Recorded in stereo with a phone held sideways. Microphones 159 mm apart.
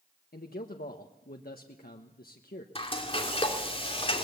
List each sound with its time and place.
0.3 s a man speaking: 70° left (ahead or behind), 1.2 m
2.8 s frying: 35° left (ahead or behind), 2.5 m